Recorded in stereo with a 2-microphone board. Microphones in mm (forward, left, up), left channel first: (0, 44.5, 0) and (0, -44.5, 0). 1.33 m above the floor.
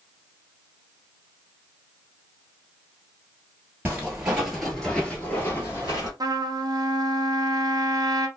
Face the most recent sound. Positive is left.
turn(degrees=-45)  # may be behind; listen again after turning